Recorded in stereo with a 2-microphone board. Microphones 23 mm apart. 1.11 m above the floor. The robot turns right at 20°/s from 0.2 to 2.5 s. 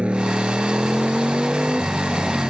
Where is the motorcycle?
55° right (ahead or behind); by 2.5 s 15° right (ahead or behind).